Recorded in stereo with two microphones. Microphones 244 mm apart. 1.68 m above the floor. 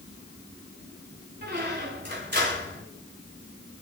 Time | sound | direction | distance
1.4 | a squeak | 45° right (ahead or behind) | 4 m